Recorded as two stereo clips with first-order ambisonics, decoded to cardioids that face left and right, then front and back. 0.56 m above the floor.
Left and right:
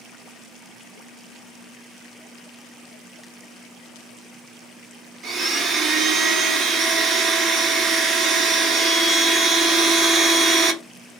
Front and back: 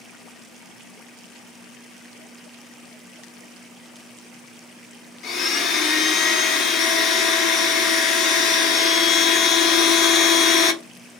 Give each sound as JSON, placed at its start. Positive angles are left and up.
{"t": 5.2, "sound": "a blender", "azimuth_deg": -40, "distance_m": 0.7}